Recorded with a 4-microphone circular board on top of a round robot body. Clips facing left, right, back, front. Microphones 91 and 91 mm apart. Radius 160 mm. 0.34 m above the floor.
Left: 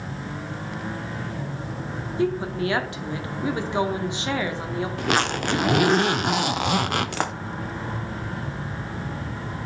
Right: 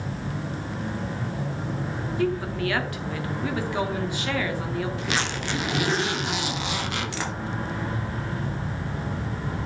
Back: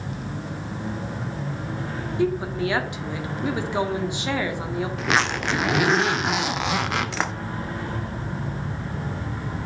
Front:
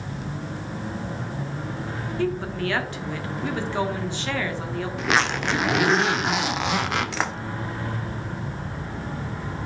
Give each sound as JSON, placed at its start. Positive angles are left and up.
{"t": 2.2, "sound": "a woman speaking", "azimuth_deg": 125, "distance_m": 1.2}
{"t": 5.0, "sound": "a zipper", "azimuth_deg": 90, "distance_m": 0.6}